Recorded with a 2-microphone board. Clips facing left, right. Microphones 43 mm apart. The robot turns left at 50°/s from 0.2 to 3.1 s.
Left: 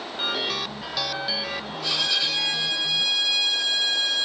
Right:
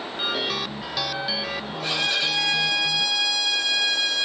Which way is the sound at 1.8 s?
65° right.